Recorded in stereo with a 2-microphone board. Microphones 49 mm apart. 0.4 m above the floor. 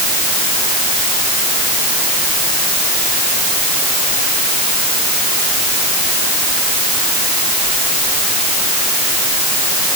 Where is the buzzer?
No buzzer in this recording.